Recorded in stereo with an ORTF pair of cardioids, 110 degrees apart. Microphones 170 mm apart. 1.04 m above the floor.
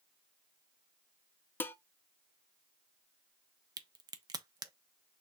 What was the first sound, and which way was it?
Dishes clattering, 10° left.